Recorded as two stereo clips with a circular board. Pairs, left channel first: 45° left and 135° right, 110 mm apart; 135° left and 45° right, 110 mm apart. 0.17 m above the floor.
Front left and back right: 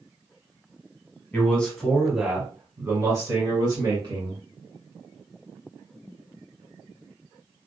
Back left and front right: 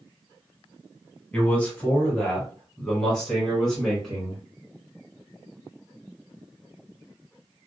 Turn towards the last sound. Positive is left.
turn(degrees=-140)